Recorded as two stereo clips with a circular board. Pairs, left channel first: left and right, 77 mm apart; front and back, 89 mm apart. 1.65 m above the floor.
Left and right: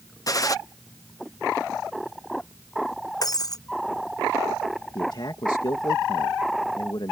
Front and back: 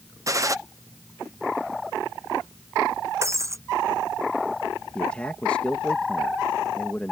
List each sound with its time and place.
0.3 s a gunshot: 130° left
3.2 s breaking glass: 125° left
5.0 s a man speaking: 75° left